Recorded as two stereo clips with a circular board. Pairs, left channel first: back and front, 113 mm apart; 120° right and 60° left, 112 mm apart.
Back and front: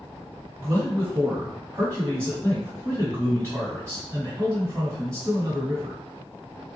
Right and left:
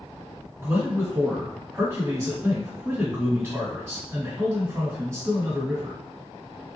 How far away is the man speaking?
About 1.7 m.